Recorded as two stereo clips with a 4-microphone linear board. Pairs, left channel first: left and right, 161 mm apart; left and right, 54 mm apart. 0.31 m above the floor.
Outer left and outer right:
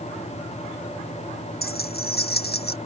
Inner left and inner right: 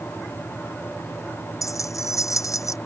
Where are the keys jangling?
75° left (ahead or behind); by 2.8 s 80° left.